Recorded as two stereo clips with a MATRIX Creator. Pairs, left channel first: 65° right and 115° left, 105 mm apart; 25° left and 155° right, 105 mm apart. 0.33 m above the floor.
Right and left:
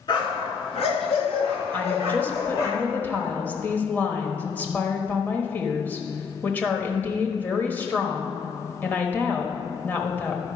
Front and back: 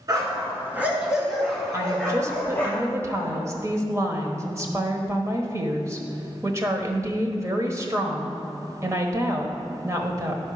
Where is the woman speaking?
125° right, 1.3 m.